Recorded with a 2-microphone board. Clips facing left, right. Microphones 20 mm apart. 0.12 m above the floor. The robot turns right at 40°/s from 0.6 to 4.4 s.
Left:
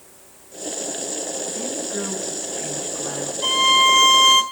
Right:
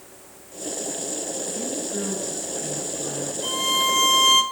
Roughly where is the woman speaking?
Ahead.